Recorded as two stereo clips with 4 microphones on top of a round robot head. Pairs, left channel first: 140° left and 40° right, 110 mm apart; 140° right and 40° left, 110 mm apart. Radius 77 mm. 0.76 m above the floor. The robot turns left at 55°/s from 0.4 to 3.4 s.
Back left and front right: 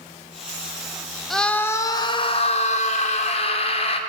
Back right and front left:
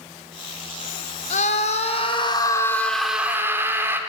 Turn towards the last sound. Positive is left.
turn(degrees=110)